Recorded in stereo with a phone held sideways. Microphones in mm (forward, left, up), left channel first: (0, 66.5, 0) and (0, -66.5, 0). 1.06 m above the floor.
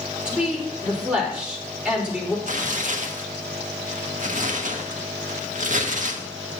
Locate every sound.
0.2 s a woman speaking: 10° right (ahead or behind), 4 m
2.5 s tearing paper: 80° right, 1.0 m